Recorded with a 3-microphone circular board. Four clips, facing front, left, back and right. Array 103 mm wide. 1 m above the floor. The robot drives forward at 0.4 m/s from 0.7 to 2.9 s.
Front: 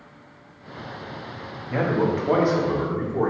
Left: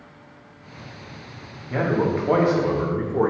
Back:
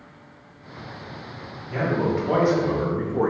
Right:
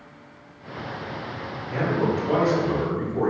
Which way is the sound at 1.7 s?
45° left.